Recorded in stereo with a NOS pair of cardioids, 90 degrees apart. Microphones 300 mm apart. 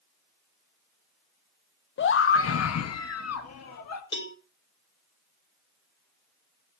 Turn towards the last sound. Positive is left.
turn(degrees=40)